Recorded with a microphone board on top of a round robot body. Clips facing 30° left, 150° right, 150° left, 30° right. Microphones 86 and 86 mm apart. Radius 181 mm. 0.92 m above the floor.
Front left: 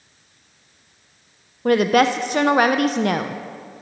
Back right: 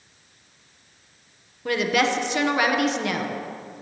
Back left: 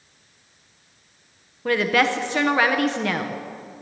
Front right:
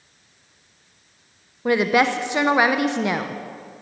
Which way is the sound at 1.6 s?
35° left.